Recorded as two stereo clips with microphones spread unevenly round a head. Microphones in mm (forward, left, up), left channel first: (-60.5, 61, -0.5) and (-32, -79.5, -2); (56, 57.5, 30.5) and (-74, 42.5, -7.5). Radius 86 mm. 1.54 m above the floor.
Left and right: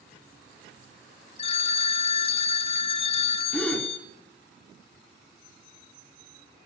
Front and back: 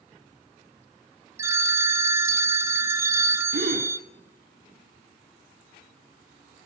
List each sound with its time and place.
1.4 s a phone ringing: 105° left, 0.5 m
3.5 s a gasp: 175° right, 3.5 m